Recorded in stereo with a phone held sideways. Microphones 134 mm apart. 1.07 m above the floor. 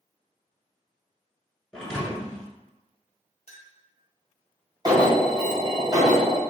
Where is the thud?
5° left (ahead or behind), 1.2 m.